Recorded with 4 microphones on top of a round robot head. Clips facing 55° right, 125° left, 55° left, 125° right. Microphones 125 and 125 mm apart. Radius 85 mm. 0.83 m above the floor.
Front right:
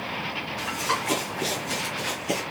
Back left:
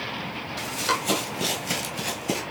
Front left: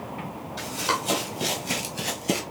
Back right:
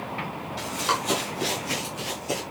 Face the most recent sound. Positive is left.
turn(degrees=60)